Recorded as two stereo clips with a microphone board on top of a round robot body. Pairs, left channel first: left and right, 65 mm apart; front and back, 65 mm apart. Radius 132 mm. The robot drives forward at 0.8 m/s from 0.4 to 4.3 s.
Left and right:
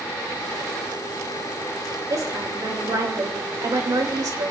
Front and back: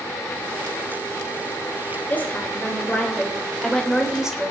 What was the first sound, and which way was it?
A woman speaking, 65° right.